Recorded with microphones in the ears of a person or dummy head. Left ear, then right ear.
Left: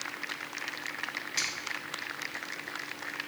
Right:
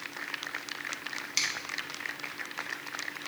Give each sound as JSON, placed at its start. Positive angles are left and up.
{"t": 1.4, "sound": "a finger snap", "side_deg": -20, "distance_m": 1.0}